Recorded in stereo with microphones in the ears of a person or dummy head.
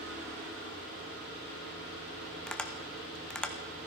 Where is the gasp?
I don't hear a gasp.